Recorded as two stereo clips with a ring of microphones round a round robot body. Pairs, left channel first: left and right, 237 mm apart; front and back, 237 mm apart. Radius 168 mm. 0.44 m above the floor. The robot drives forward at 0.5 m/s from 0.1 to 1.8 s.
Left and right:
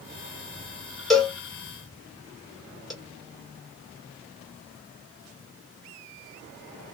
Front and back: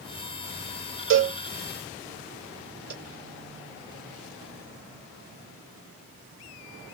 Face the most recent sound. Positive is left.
turn(degrees=180)